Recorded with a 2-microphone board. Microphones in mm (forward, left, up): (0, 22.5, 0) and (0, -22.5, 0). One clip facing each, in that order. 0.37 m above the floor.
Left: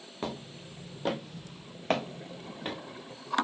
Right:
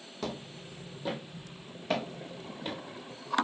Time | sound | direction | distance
0.2 | footsteps | 25° left (ahead or behind) | 1.5 m